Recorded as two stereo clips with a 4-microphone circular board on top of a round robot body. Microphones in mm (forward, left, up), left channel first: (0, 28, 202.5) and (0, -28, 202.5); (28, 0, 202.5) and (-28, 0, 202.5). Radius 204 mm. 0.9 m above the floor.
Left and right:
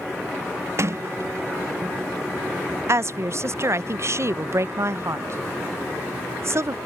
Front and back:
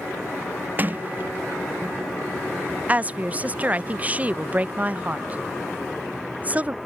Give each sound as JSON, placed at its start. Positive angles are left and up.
{"t": 0.8, "sound": "a sliding door", "azimuth_deg": -125}
{"t": 2.9, "sound": "a woman speaking", "azimuth_deg": -120}